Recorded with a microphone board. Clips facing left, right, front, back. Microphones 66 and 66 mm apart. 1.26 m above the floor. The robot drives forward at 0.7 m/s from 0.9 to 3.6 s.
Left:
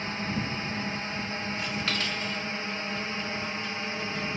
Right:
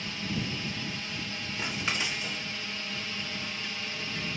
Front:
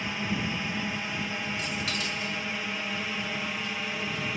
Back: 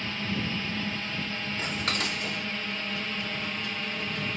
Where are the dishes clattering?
145° right; by 4.3 s 175° right.